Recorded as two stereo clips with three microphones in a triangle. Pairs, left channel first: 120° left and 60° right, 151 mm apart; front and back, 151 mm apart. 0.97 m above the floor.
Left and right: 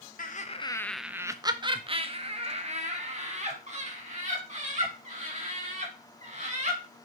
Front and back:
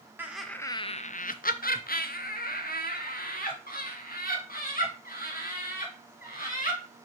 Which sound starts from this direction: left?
Laughter, at 0.2 s.